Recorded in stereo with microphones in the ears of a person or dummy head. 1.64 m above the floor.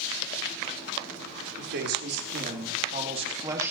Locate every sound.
1.6 s a man speaking: 75° right (ahead or behind), 4 m; by 3.7 s 20° right (ahead or behind), 1.9 m